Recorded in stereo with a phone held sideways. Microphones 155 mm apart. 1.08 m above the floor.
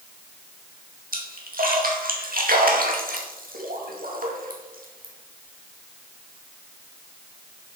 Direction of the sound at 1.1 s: 65° right (ahead or behind).